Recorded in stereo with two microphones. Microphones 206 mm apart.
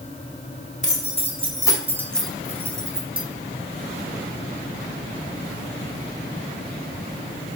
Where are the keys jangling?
35° left (ahead or behind), 1.5 m; by 3.2 s 25° right (ahead or behind), 1.3 m.